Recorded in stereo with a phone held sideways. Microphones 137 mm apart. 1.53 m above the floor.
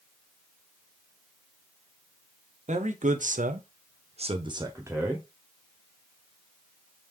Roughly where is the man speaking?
Right.